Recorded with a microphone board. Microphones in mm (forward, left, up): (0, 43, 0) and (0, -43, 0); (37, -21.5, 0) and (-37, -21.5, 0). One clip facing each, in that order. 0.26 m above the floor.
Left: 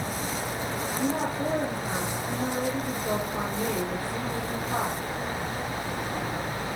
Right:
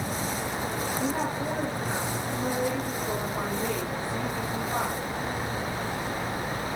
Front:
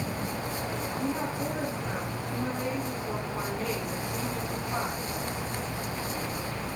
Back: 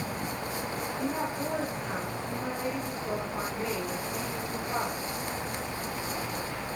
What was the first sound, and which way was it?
A woman speaking, 115° left.